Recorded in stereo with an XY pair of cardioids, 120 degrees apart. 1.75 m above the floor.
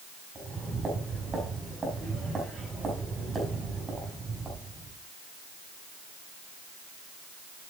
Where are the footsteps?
25° right, 6 m.